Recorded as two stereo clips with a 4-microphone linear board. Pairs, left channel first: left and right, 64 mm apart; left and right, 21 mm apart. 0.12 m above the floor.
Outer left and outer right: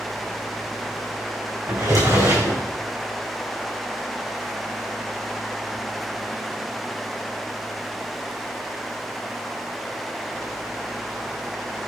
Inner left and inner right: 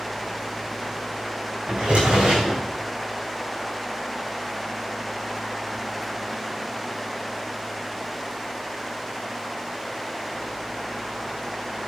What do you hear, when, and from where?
1.7 s a drawer: 65° right (ahead or behind), 3.5 m